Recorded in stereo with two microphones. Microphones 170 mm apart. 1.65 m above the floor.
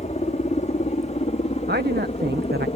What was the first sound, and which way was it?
A helicopter, 40° left (ahead or behind).